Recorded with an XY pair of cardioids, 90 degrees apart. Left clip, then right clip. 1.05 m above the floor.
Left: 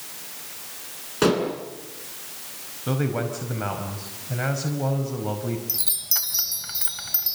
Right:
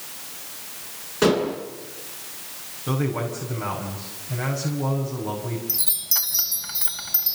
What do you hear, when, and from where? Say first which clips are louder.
1.2 s dishes clattering: right 1 dB; 20° left, 9 m
2.9 s a man speaking: even; 35° left, 5 m
5.7 s a chime: right 2 dB; 5° left, 3 m